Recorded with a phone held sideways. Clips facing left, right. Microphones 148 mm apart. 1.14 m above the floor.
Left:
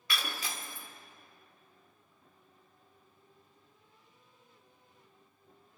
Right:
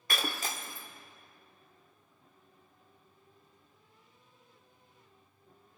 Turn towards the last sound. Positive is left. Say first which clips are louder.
# right 3 dB
turn(degrees=-45)  # may be behind; listen again after turning